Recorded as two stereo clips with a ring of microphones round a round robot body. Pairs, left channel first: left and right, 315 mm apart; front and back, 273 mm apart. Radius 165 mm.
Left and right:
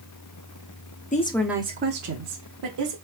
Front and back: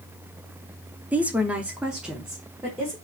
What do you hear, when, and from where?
1.1 s a woman speaking: 105° left, 0.9 m; by 3.0 s 90° right, 1.8 m